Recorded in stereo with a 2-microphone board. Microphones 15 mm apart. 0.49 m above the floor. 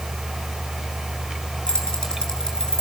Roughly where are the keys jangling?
Left.